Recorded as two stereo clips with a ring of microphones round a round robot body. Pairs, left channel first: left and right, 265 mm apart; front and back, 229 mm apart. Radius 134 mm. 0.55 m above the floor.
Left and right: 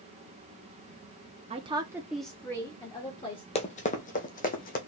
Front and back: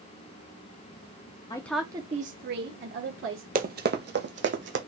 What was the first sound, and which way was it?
A woman speaking, 55° right.